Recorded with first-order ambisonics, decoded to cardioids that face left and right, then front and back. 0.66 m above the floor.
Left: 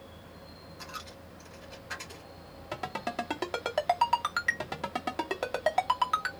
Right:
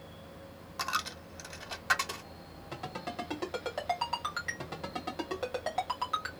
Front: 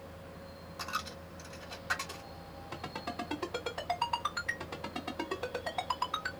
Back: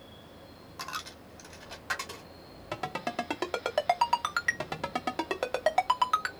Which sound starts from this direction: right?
A dropped coin, at 0.8 s.